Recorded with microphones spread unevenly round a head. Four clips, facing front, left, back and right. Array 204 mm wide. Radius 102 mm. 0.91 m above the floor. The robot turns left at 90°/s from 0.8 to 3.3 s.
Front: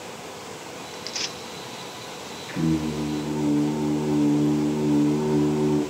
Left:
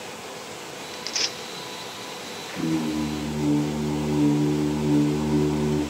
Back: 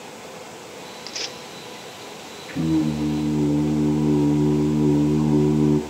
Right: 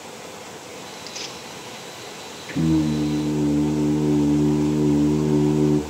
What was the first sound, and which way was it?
Tearing paper, 175° left.